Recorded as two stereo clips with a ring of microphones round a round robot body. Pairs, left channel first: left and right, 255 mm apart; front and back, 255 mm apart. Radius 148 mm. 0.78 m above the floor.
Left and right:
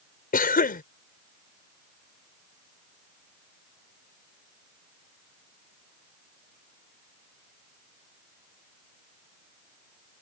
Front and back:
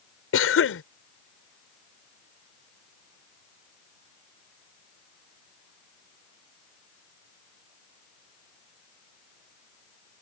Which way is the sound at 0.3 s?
35° left.